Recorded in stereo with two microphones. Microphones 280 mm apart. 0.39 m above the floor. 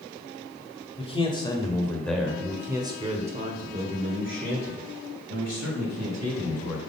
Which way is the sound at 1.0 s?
20° left (ahead or behind).